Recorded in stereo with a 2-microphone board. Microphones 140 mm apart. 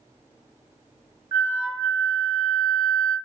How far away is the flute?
About 1.8 m.